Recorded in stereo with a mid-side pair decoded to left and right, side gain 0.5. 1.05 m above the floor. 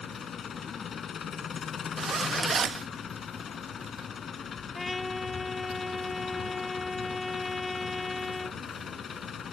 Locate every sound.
0.0 s an engine running: 50° left
2.0 s a zipper: 35° right
4.8 s a trumpet: 20° left